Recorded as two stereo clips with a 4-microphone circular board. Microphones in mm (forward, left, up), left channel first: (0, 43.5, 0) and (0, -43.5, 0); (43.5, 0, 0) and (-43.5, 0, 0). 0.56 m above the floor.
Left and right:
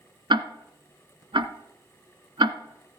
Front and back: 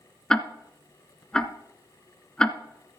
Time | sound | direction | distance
0.3 | ticking | 80° right | 1.0 m